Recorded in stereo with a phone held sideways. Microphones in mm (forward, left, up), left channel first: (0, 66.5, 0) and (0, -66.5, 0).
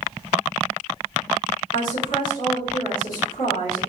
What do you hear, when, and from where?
1.7 s a woman speaking: 75° left (ahead or behind), 1.8 m